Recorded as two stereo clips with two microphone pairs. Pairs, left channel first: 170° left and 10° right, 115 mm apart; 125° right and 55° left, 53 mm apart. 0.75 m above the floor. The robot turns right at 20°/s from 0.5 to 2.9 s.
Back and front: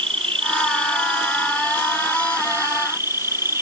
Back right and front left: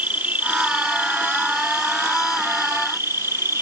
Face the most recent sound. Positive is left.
turn(degrees=50)